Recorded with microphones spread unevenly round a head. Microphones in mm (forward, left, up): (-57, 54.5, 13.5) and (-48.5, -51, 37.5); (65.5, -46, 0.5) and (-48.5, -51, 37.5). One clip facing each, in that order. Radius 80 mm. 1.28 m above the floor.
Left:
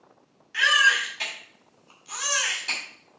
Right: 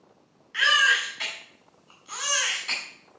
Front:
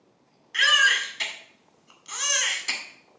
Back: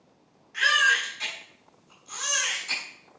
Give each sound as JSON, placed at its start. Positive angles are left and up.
{"t": 0.5, "sound": "a baby crying", "azimuth_deg": 30, "distance_m": 2.0}